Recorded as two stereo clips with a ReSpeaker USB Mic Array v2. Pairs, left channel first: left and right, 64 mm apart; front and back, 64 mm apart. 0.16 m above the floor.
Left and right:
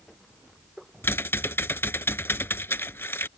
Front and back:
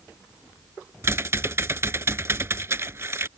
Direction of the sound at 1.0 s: 140° left.